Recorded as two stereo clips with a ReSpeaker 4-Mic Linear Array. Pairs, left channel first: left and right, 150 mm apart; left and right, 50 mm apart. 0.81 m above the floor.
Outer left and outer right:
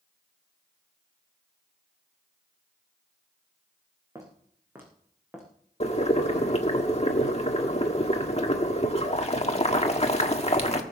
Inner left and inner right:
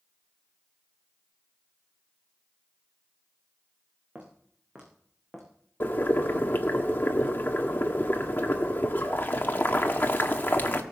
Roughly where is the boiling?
Left.